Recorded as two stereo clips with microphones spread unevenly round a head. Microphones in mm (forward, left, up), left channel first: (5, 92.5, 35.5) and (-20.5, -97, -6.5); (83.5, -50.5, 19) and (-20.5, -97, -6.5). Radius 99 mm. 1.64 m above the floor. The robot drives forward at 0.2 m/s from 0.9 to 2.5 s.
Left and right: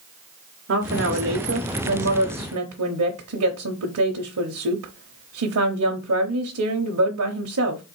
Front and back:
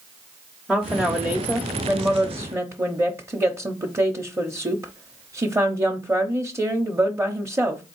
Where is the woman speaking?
65° right, 0.9 m; by 7.8 s 85° right, 0.8 m.